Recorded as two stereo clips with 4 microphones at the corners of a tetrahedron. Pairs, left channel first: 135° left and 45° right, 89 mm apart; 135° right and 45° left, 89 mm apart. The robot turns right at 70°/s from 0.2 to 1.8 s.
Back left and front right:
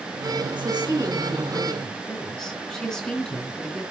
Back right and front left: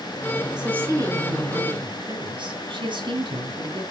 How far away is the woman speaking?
About 3.5 m.